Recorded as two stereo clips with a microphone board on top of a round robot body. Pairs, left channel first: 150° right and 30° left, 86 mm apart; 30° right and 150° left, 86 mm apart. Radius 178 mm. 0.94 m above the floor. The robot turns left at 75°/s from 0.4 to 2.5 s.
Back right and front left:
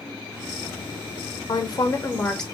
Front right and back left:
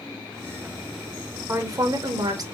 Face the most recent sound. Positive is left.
turn(degrees=125)